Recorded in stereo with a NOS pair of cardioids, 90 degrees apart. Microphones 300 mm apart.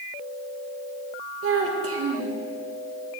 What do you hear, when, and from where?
1.4 s a child speaking: 50° right, 1.7 m